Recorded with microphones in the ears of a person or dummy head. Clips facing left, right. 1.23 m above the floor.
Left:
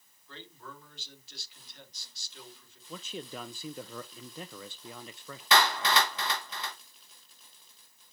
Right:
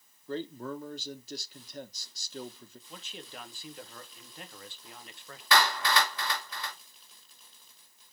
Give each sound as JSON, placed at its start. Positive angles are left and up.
{"t": 0.3, "sound": "a man speaking", "side_deg": -35, "distance_m": 1.0}
{"t": 2.9, "sound": "a man speaking", "side_deg": 70, "distance_m": 1.2}
{"t": 5.5, "sound": "a clap", "side_deg": 20, "distance_m": 2.0}